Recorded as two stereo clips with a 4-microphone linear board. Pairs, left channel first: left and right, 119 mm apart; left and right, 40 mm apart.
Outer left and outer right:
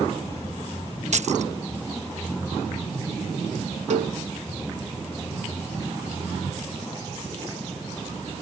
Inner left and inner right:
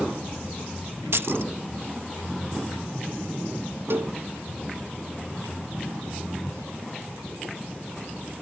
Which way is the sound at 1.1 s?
65° right (ahead or behind).